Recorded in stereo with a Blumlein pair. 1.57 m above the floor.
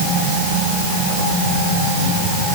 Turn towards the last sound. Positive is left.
No sound to turn to.